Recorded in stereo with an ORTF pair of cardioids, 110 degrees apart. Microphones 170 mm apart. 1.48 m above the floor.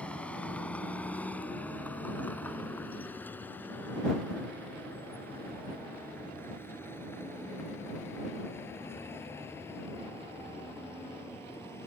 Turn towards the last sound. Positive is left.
turn(degrees=15)